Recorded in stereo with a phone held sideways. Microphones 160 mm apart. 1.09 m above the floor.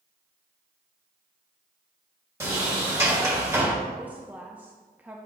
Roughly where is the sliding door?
Centre.